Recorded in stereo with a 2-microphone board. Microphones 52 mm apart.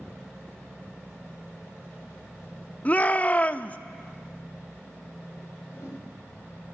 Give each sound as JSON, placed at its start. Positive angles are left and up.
{"t": 2.9, "sound": "a shout", "side_deg": 30, "distance_m": 0.8}
{"t": 5.7, "sound": "a whoosh", "side_deg": 70, "distance_m": 4.0}